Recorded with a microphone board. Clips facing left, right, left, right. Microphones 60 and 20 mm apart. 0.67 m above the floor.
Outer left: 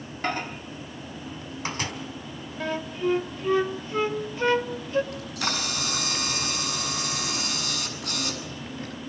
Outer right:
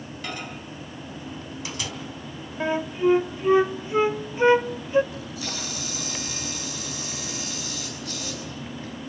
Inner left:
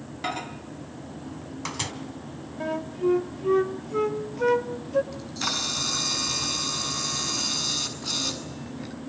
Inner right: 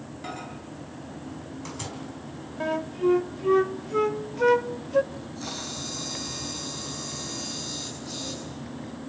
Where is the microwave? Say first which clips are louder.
Outer left 6 dB, inner left 6 dB; 40° left (ahead or behind), 3.5 m.